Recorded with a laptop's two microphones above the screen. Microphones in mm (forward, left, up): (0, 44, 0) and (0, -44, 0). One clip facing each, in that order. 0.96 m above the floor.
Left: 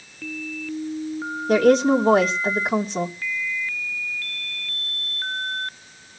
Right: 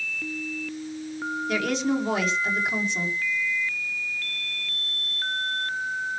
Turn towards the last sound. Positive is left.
turn(degrees=40)  # may be behind; listen again after turning